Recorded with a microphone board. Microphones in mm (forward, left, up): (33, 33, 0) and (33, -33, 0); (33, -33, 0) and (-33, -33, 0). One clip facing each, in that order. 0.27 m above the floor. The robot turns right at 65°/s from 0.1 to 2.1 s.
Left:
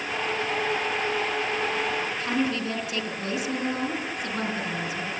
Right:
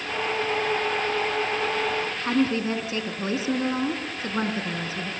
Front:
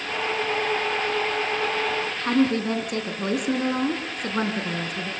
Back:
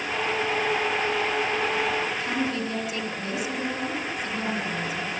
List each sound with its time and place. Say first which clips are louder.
2.2 s a woman speaking: right 5 dB, front 6 dB; 30° right, 3.5 m